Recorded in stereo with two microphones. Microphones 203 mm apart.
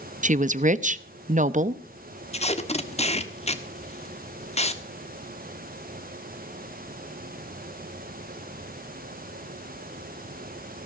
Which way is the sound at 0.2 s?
40° right (ahead or behind).